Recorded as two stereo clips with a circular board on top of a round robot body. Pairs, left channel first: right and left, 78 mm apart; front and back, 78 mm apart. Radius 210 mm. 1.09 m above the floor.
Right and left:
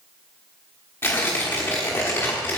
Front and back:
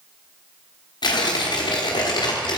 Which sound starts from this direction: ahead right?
Tearing paper, at 1.0 s.